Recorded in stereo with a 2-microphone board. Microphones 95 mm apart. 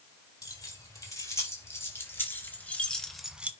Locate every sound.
0.4 s keys jangling: 35° left (ahead or behind), 5 m; by 3.5 s 15° right (ahead or behind), 1.2 m